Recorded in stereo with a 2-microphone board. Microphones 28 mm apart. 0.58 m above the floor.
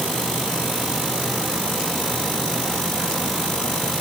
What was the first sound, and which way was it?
Only background noise.